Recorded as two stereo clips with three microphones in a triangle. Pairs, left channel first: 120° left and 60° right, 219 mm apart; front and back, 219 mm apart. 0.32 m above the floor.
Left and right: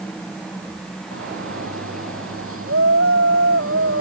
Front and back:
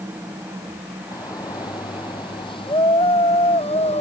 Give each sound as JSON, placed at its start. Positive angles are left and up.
{"t": 1.1, "sound": "a shout", "azimuth_deg": -75}